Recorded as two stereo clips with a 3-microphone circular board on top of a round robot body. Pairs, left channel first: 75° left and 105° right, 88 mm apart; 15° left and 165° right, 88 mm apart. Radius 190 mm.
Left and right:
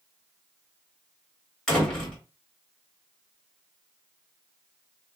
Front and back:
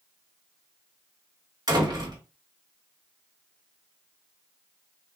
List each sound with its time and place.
1.7 s a door slam: 160° left, 1.8 m